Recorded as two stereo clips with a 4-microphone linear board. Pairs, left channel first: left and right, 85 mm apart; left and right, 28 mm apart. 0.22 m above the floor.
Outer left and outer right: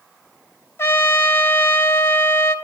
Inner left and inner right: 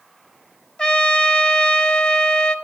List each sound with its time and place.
0.8 s a trumpet: 30° left (ahead or behind), 0.5 m